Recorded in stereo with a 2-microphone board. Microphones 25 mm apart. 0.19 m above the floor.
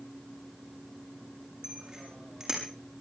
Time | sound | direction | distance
1.6 | a bicycle bell | 25° right (ahead or behind) | 7 m